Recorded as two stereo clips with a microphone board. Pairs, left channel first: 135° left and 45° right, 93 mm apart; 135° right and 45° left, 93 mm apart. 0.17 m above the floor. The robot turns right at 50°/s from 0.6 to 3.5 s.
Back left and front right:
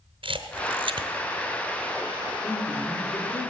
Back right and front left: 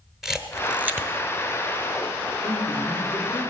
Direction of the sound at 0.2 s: 40° right.